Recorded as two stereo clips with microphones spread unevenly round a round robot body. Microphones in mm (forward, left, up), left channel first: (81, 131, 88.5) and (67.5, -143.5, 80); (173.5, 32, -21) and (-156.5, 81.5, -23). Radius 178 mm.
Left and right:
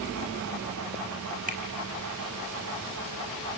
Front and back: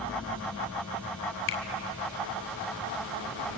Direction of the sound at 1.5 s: 35° right.